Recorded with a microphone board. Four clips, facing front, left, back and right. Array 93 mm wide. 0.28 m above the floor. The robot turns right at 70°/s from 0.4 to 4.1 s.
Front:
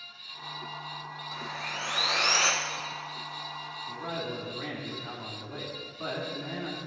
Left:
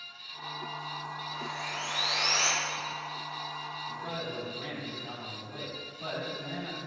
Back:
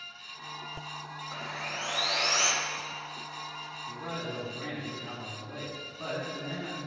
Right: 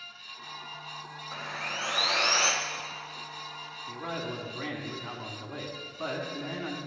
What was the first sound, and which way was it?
Sawing, 110° right.